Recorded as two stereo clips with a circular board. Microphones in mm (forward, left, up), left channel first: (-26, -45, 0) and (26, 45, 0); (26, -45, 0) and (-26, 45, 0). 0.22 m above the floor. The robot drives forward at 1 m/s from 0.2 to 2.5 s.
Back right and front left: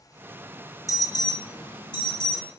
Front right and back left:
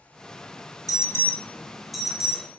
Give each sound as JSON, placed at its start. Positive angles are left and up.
{"t": 0.9, "sound": "an alarm", "azimuth_deg": -90, "distance_m": 0.9}